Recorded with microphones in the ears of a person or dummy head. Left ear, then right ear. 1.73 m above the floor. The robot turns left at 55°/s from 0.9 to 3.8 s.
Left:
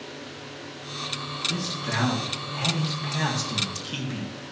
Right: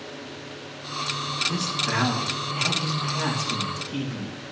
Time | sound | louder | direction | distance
1.5 | a man speaking | right 3 dB | 150° right | 2 m